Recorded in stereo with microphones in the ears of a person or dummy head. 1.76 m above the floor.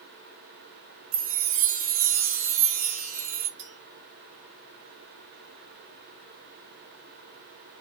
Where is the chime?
45° right (ahead or behind), 1.0 m.